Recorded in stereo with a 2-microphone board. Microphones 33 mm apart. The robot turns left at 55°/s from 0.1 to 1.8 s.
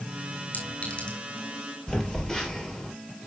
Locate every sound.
0.5 s a clink: 60° left (ahead or behind), 5 m; by 1.2 s 30° left (ahead or behind), 5 m
1.9 s a phone buzzing: 20° left (ahead or behind), 3 m